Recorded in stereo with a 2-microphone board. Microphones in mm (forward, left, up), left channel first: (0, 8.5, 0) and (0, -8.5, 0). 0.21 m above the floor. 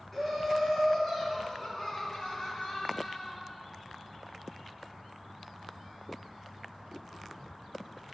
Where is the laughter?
20° left (ahead or behind), 3 m; by 3.4 s 45° left (ahead or behind), 1.7 m.